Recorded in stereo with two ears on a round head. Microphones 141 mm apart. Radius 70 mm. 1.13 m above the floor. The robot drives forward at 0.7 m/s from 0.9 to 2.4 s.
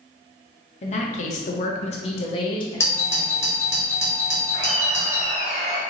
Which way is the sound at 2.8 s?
15° left (ahead or behind).